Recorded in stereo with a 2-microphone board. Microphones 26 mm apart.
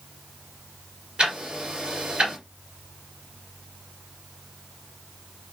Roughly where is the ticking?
Right.